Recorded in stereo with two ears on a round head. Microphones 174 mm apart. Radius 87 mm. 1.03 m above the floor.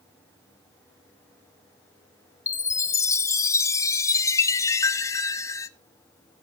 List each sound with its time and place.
2.5 s a chime: 15° left (ahead or behind), 0.5 m